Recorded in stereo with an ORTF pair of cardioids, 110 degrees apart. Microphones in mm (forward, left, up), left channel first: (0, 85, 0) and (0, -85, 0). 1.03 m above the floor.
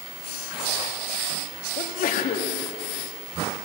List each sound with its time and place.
1.8 s a sneeze: 55° left, 1.7 m